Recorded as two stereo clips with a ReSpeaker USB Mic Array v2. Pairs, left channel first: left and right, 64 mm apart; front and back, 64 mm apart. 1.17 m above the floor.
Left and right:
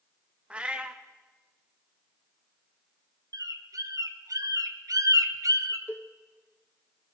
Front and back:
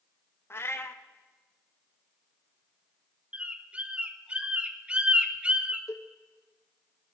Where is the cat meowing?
25° right, 0.6 m.